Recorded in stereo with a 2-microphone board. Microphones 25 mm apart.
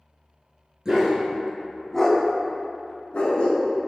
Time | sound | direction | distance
0.8 | a dog barking | 25° right (ahead or behind) | 0.9 m